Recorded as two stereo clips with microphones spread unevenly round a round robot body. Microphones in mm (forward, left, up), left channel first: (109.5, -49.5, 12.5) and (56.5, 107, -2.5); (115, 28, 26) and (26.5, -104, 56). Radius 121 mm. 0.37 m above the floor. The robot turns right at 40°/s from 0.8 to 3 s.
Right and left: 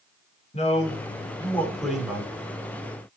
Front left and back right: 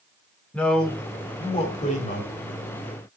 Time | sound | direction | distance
0.5 | a man speaking | 25° right | 5 m